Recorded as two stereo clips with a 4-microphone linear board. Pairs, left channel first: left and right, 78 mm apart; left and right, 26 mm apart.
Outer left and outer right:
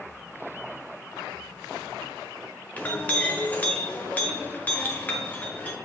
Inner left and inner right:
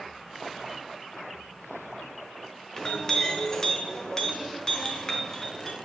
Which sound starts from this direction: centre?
A clink, at 2.8 s.